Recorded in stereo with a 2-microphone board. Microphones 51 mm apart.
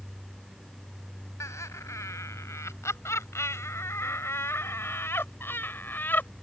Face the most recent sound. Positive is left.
turn(degrees=40)  # may be behind; listen again after turning